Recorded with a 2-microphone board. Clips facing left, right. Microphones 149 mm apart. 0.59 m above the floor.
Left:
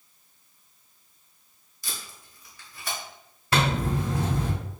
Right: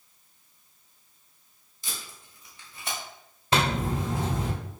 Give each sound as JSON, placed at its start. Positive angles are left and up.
{"t": 1.8, "sound": "tape being pulled", "side_deg": -25, "distance_m": 1.5}
{"t": 3.5, "sound": "a zipper", "side_deg": -20, "distance_m": 1.2}